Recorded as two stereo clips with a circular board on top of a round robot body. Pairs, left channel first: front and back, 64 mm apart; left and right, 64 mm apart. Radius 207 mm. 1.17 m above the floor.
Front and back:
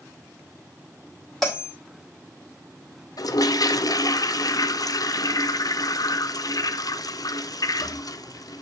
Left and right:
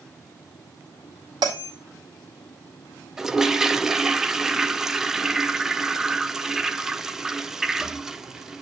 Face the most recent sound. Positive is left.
turn(degrees=-5)